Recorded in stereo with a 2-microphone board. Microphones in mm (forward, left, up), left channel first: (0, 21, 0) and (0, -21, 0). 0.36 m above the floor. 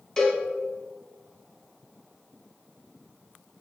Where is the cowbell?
10° left (ahead or behind), 0.7 m.